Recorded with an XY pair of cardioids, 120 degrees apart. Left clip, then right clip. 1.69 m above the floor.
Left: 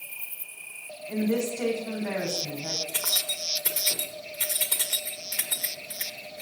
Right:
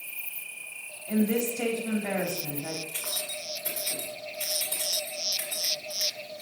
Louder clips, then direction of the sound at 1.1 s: Even; 35° right.